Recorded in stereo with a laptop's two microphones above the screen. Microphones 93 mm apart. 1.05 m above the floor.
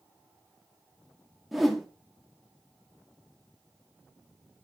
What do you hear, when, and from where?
1.5 s a whoosh: centre (ahead or behind), 2 m